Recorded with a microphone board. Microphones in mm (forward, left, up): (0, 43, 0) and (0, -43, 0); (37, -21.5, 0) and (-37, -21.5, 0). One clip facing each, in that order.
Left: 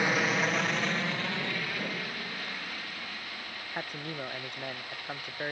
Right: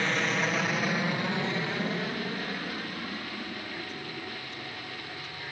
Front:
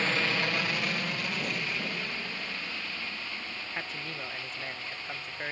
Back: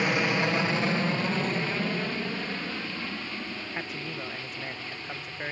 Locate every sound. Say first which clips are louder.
0.0 s an aircraft: left 1 dB, back 4 dB; 145° left; by 5.5 s 125° right
3.7 s a man speaking: left 1 dB, back 1 dB; 100° left